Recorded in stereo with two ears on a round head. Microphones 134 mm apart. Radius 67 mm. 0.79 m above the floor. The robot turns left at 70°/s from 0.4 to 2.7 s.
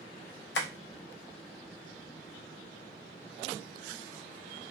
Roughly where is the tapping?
Left.